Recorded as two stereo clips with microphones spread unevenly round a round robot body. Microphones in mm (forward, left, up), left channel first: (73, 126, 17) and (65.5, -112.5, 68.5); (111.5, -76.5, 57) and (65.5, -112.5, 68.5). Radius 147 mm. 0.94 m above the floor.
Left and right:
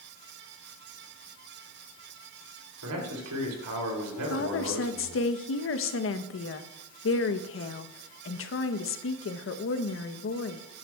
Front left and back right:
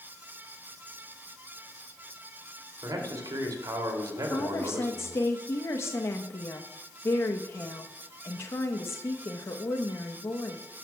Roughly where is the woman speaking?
Left.